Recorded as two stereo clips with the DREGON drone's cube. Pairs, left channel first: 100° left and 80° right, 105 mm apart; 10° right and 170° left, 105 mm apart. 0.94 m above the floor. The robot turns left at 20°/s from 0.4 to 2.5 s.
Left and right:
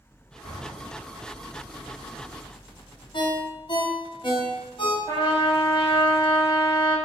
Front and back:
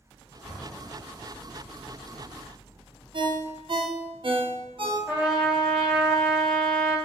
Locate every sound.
0.4 s an explosion: 85° left, 1.8 m; by 1.4 s 65° left, 1.8 m
3.1 s a ringtone: 135° left, 0.7 m
5.1 s a trumpet: 90° left, 1.1 m